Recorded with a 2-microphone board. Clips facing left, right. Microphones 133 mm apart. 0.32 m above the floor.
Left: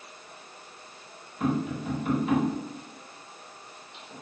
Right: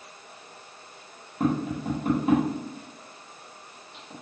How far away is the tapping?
About 1.2 m.